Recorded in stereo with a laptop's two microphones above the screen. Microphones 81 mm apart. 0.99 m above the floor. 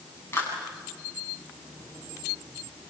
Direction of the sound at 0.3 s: 30° left (ahead or behind).